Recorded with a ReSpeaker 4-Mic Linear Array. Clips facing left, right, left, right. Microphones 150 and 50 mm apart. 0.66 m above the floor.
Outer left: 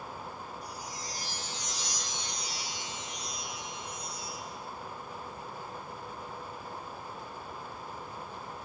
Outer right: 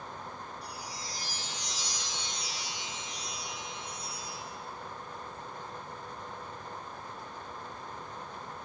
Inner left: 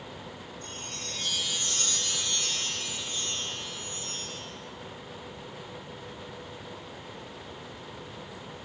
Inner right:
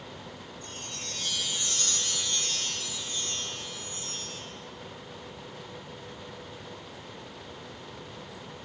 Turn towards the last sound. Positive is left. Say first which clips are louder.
# outer left 1 dB, even
turn(degrees=45)  # may be behind; listen again after turning